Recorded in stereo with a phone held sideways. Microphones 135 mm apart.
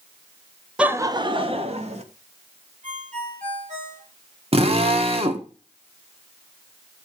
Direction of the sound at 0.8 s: 10° right (ahead or behind).